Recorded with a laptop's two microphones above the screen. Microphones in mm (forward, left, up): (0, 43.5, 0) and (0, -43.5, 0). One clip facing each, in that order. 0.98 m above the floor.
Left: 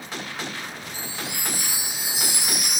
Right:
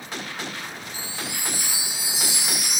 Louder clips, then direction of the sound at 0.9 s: Left 1 dB; 50° left (ahead or behind).